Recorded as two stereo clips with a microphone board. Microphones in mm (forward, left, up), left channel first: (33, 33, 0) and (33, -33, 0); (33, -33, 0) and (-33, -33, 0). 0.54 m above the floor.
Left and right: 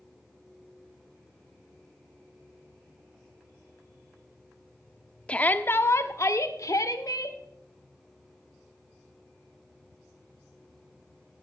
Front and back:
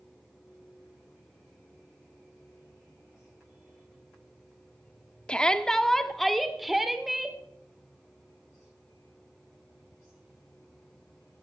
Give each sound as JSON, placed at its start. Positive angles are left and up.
{"t": 5.3, "sound": "a shout", "azimuth_deg": 50, "distance_m": 0.7}